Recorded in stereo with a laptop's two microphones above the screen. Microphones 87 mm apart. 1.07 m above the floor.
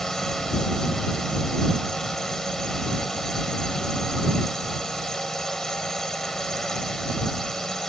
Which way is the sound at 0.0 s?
5° left (ahead or behind).